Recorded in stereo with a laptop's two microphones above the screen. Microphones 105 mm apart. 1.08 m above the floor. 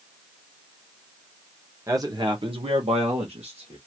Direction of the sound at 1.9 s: 30° right (ahead or behind).